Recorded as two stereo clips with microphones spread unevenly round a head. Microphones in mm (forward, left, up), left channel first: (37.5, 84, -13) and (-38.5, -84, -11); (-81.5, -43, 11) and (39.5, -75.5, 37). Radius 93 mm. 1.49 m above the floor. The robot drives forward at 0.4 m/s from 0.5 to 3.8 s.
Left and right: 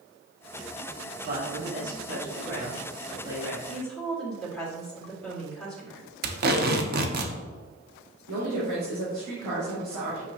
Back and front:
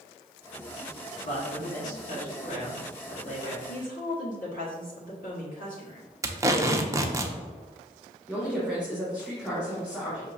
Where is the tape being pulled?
75° right, 0.6 m.